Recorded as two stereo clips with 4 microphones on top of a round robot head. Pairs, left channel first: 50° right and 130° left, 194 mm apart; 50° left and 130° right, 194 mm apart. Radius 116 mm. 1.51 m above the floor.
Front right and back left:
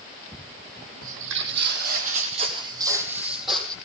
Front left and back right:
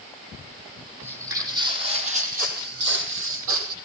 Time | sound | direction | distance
1.0 | footsteps | 150° left | 3 m